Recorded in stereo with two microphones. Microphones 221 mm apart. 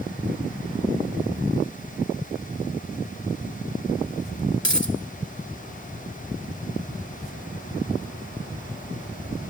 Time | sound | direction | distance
4.6 | a dropped coin | 55° left (ahead or behind) | 1.4 m